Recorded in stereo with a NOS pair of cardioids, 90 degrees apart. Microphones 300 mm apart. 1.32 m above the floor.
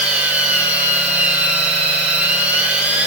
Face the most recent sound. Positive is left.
turn(degrees=-5)